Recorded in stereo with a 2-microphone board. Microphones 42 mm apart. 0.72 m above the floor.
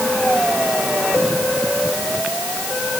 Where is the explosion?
No explosion in this recording.